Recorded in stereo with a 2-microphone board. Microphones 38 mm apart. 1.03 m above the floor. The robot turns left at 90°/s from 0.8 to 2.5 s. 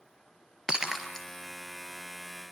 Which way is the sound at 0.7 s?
25° right (ahead or behind).